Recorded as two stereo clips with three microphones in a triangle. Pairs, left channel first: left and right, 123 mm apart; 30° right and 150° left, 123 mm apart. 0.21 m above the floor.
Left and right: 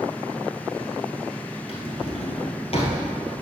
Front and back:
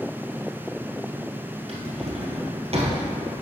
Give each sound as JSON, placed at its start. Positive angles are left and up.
{"t": 1.7, "sound": "a drawer", "azimuth_deg": 120, "distance_m": 1.8}